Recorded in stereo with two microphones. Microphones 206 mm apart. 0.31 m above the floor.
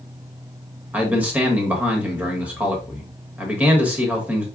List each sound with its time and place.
0.9 s a man speaking: 10° right (ahead or behind), 1.2 m